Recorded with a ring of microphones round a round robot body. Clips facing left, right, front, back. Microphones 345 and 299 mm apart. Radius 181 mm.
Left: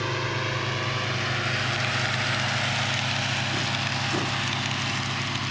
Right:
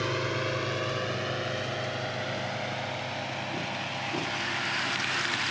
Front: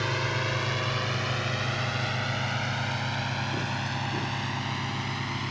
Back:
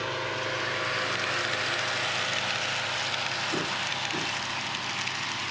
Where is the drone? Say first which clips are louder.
Even, front 1 dB; 10° left; by 5.5 s 40° left.